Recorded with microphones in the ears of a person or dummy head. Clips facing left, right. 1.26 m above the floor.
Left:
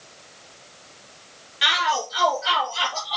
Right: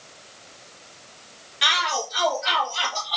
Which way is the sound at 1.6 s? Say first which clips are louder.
Left 2 dB; 10° left (ahead or behind).